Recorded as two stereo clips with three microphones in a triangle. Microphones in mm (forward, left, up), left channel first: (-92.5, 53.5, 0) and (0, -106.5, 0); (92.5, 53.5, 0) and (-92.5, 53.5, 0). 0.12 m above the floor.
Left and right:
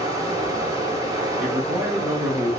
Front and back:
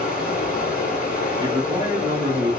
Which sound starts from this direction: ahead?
Running water, at 0.0 s.